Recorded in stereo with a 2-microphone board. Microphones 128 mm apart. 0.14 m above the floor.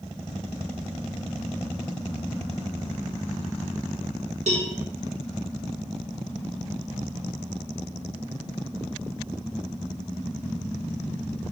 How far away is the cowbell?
About 0.9 m.